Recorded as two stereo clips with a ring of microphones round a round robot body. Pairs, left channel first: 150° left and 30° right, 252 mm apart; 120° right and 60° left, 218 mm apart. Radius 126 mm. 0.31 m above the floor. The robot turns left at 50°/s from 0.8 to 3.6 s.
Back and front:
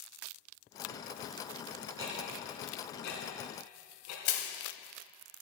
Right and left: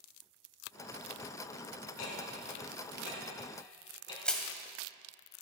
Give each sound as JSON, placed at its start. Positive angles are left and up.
{"t": 2.0, "sound": "ticking", "azimuth_deg": -105, "distance_m": 3.0}
{"t": 4.2, "sound": "crushing", "azimuth_deg": 155, "distance_m": 1.4}